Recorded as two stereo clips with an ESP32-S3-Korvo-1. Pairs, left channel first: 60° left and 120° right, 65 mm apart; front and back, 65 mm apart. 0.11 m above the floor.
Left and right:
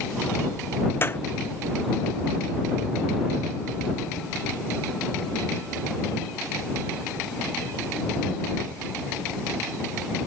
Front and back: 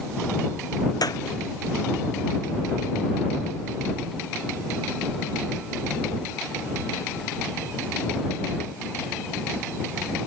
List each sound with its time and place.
1.0 s a clap: 5° left